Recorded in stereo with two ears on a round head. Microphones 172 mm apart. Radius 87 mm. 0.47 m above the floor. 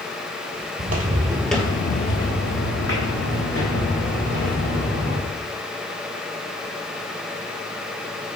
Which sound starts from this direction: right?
Footsteps, at 0.8 s.